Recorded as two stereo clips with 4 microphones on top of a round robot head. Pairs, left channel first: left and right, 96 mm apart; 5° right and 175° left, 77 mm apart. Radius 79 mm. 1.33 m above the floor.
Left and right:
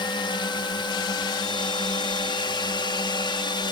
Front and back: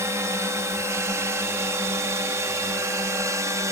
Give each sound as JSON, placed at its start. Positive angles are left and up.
{"t": 0.0, "sound": "a drone", "azimuth_deg": 125}